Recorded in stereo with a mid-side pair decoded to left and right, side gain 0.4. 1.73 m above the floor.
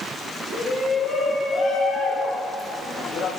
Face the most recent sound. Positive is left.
turn(degrees=70)